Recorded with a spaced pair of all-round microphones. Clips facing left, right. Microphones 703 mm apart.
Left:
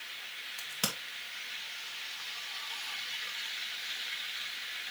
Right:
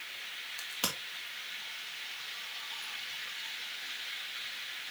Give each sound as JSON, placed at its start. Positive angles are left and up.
{"t": 0.6, "sound": "a crack", "side_deg": 45, "distance_m": 1.9}